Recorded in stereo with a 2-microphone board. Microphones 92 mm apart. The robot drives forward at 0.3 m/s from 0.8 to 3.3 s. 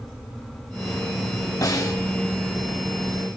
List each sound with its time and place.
1.6 s a snare drum: 40° left (ahead or behind), 2 m